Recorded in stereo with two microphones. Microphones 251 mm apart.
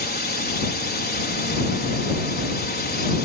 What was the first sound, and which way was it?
A drone, 40° left (ahead or behind).